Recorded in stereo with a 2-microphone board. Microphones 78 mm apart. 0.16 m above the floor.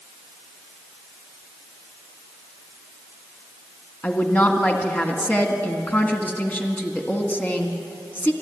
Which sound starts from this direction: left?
A woman speaking, at 4.0 s.